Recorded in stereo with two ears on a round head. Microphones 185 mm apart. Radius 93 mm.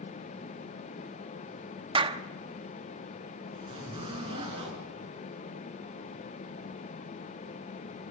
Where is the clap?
25° right (ahead or behind), 0.8 m.